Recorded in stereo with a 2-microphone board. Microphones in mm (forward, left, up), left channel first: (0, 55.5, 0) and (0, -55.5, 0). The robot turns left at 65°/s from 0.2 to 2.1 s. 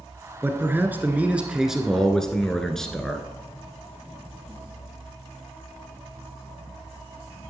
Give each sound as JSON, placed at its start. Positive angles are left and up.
{"t": 0.4, "sound": "a man speaking", "side_deg": -20, "distance_m": 1.1}